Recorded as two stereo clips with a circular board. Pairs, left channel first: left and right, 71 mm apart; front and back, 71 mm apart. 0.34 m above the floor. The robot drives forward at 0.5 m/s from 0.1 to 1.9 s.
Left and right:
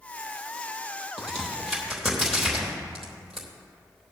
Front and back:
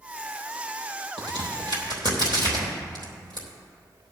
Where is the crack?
175° left, 3 m.